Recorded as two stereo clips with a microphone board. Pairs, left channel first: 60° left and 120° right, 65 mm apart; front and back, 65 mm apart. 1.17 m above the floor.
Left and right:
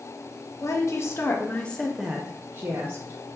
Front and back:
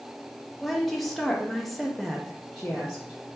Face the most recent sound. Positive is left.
turn(degrees=-95)